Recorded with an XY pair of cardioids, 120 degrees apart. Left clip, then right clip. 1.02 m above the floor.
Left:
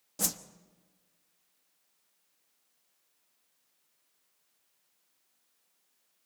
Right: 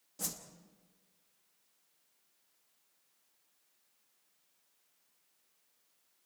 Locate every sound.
0.2 s a whoosh: 50° left, 1.0 m